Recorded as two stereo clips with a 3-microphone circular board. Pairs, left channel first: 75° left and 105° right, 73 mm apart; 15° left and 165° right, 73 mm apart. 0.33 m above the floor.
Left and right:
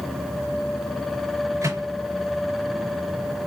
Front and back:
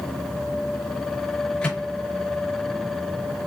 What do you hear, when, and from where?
1.6 s a microwave: 60° right, 5 m